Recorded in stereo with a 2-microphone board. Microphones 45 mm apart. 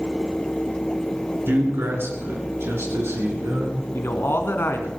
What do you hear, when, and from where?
1.5 s a man speaking: 50° right (ahead or behind), 3 m; by 3.8 s 70° right (ahead or behind), 4.5 m
3.9 s a man speaking: 55° left (ahead or behind), 1.9 m